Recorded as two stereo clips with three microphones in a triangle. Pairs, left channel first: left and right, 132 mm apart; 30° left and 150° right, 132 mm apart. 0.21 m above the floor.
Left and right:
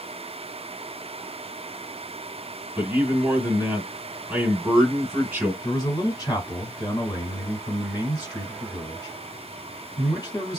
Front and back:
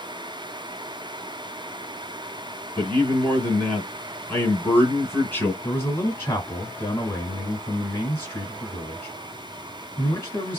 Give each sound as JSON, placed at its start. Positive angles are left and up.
{"t": 2.8, "sound": "a man speaking", "azimuth_deg": -30, "distance_m": 1.7}
{"t": 5.6, "sound": "a man speaking", "azimuth_deg": 80, "distance_m": 1.5}